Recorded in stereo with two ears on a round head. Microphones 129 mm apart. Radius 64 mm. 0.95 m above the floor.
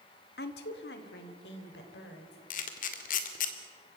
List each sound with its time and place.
0.4 s a woman speaking: 75° left (ahead or behind), 1.7 m; by 2.4 s 85° left, 4 m
2.5 s a camera shutter: 60° left (ahead or behind), 1.9 m